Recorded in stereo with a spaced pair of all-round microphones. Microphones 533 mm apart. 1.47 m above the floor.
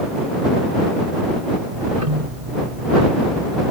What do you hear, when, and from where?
1.7 s ticking: 85° right